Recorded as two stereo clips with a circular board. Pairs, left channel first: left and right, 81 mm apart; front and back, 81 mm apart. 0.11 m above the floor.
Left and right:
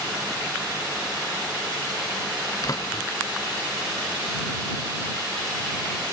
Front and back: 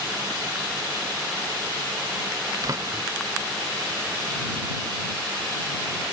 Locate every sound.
2.6 s a door slam: 135° left